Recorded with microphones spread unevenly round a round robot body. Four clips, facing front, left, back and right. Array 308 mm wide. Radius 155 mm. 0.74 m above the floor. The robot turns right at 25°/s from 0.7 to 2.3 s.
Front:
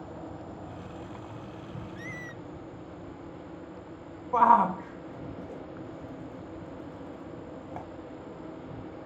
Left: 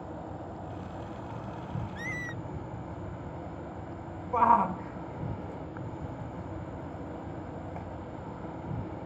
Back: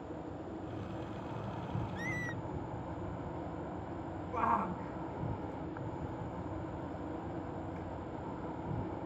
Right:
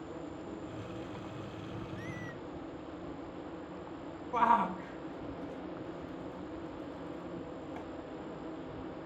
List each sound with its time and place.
0.0 s an insect: 55° left; by 9.1 s 95° left
1.9 s a squeak: 100° left; by 2.4 s 110° left
4.3 s a shout: 25° left